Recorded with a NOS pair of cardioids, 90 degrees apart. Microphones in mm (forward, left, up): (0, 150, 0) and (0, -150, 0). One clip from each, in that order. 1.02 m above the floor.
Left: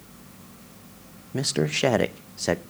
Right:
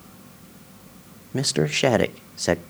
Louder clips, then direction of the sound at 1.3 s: Right 2 dB; 10° right.